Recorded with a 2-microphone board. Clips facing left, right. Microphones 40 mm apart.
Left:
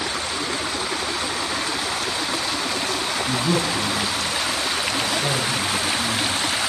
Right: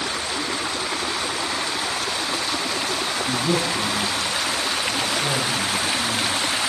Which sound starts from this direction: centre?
A man speaking, at 3.3 s.